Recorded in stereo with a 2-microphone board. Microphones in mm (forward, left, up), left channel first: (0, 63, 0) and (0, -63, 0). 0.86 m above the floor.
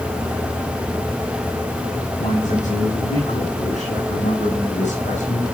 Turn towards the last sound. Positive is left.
turn(degrees=75)  # may be behind; listen again after turning